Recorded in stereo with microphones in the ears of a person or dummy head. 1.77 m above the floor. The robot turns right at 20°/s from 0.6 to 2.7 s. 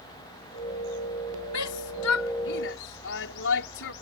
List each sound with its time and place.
1.5 s a shout: 80° left; by 3.9 s 60° left (ahead or behind)